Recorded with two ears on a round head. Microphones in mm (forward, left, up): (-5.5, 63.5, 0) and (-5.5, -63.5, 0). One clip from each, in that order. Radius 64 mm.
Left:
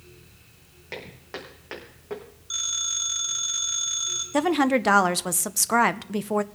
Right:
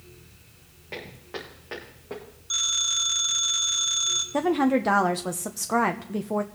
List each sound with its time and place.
0.9 s footsteps: 55° left (ahead or behind), 5.5 m; by 2.2 s 50° left (ahead or behind), 6 m
2.5 s a phone ringing: 15° right (ahead or behind), 2.5 m
4.3 s a woman speaking: 50° left (ahead or behind), 0.6 m